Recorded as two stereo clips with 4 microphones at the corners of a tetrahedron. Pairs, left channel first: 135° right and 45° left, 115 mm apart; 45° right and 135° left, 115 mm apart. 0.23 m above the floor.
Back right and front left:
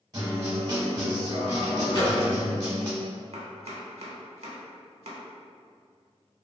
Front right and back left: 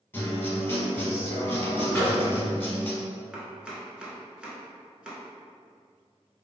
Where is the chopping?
55° left, 0.6 m.